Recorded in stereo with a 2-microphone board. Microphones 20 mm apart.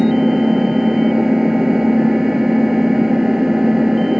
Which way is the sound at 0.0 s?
30° right (ahead or behind).